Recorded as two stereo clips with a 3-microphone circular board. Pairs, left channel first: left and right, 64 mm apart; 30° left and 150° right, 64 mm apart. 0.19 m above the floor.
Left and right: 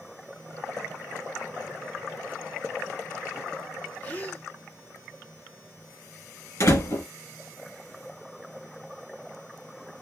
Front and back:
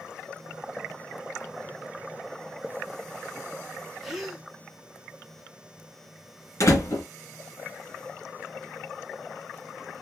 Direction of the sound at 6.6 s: 60° left.